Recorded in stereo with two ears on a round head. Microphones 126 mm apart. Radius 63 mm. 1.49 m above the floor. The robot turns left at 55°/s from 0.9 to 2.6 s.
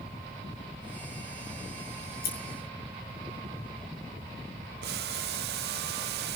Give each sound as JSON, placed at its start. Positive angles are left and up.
{"t": 2.1, "sound": "scissors", "side_deg": 70, "distance_m": 5.5}
{"t": 4.8, "sound": "boiling", "side_deg": -80, "distance_m": 0.6}